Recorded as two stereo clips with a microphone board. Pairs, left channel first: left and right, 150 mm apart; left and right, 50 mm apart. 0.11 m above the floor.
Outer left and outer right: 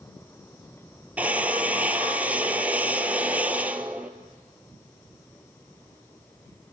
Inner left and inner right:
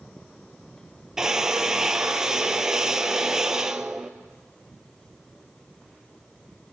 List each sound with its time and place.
1.2 s a drill: 10° right (ahead or behind), 1.2 m